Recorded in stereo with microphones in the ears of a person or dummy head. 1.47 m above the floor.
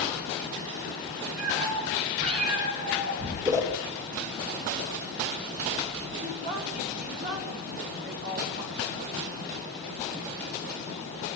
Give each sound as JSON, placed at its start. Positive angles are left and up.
{"t": 1.4, "sound": "a cat meowing", "side_deg": -40, "distance_m": 10.0}
{"t": 3.5, "sound": "a whoosh", "side_deg": -15, "distance_m": 3.5}
{"t": 6.2, "sound": "a woman speaking", "side_deg": -55, "distance_m": 4.5}